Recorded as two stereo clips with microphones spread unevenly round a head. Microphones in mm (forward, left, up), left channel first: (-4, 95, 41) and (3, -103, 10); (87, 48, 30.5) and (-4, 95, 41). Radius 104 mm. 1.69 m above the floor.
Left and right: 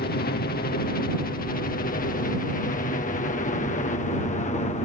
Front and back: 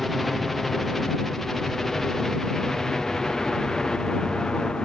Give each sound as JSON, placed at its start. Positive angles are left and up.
{"t": 0.0, "sound": "a helicopter", "azimuth_deg": 60}